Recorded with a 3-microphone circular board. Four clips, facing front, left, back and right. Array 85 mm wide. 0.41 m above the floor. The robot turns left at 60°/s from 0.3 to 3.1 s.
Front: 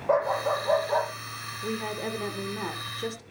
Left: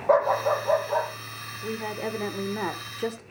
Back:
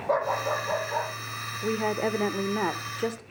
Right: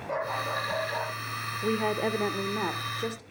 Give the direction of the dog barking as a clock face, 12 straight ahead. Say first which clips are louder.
Left 10 dB, front 2 dB; 10 o'clock.